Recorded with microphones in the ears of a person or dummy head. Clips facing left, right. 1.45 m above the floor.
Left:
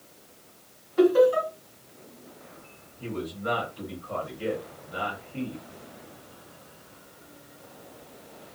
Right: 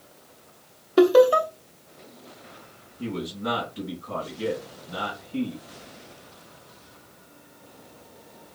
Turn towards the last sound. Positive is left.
turn(degrees=-80)